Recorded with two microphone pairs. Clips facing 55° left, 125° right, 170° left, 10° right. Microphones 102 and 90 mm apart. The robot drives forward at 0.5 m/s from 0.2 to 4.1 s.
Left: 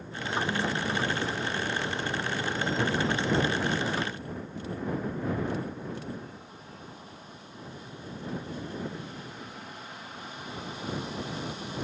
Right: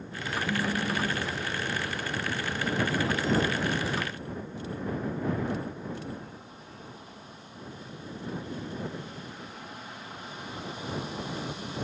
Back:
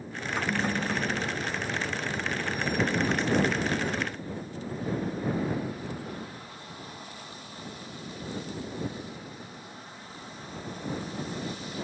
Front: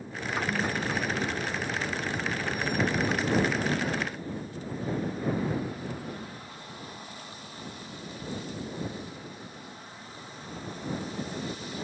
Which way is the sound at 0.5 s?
145° right.